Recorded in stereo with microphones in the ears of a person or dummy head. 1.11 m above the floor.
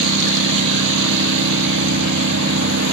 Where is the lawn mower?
65° right (ahead or behind).